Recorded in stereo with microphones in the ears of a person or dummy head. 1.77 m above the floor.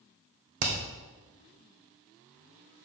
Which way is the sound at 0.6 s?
60° right (ahead or behind).